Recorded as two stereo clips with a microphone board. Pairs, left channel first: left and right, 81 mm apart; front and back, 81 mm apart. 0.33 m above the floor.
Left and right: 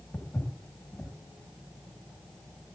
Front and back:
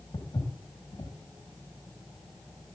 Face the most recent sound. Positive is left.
turn(degrees=20)